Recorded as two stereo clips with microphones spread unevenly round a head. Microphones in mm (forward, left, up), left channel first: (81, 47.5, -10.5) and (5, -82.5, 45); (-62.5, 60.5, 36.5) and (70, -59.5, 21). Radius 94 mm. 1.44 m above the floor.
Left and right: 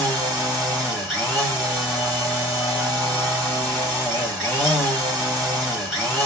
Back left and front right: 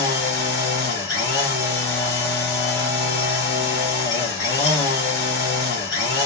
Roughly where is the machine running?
Behind.